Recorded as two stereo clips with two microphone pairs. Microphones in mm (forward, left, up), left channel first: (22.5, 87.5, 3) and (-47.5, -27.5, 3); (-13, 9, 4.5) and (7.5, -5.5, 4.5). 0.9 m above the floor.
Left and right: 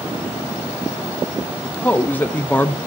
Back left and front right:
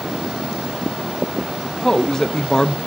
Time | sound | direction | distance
1.6 | a man speaking | 120° left | 0.7 m